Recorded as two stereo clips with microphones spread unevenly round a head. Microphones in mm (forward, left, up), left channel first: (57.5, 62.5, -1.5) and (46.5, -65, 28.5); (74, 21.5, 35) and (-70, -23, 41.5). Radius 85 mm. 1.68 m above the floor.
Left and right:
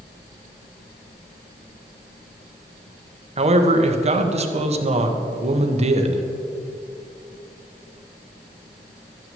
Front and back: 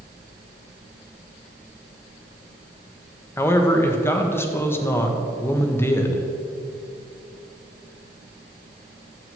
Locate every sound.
3.4 s a man speaking: 60° right, 1.4 m